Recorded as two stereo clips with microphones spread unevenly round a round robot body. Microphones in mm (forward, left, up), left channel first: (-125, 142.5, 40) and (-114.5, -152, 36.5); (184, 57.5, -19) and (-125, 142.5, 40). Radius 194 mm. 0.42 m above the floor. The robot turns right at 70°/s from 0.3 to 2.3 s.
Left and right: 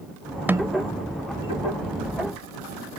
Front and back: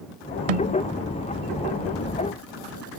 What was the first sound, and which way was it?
A snare drum, 175° right.